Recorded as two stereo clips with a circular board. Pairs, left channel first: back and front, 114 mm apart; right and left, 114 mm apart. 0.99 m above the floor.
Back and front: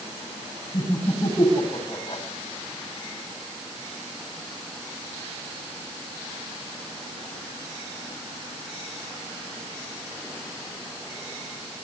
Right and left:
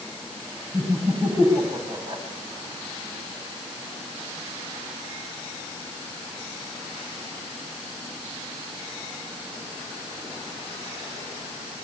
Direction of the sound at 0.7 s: 140° left.